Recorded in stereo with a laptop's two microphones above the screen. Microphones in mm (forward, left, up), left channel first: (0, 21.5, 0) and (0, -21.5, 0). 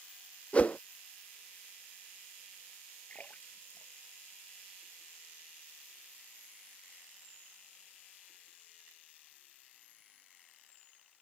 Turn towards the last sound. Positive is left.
turn(degrees=35)  # may be behind; listen again after turning